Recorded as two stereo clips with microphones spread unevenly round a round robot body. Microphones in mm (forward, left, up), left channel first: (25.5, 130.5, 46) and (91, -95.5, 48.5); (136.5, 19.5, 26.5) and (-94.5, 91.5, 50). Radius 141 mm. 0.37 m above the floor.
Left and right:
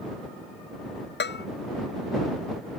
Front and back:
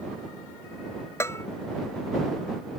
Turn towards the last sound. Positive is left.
turn(degrees=65)